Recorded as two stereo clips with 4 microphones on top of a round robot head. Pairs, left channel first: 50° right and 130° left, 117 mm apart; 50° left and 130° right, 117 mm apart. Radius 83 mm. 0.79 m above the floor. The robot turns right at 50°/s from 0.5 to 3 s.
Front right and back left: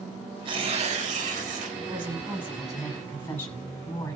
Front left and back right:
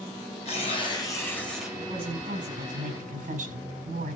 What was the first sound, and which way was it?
Tearing paper, 85° left.